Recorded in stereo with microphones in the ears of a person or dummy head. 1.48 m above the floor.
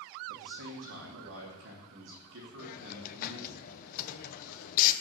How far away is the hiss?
About 0.8 m.